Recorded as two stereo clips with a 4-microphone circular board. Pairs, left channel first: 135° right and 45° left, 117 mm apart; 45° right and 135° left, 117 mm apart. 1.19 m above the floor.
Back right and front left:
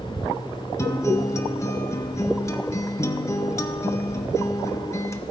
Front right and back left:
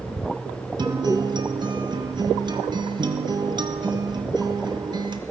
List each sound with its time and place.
0.8 s a guitar: 170° left, 0.6 m